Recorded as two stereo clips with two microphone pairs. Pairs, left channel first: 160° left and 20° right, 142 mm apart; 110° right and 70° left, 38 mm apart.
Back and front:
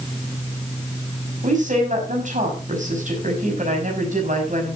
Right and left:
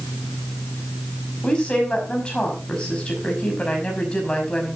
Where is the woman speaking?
50° right, 5.5 m.